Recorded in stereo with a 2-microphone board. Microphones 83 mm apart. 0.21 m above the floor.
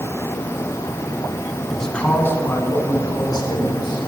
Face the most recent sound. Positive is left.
turn(degrees=60)  # may be behind; listen again after turning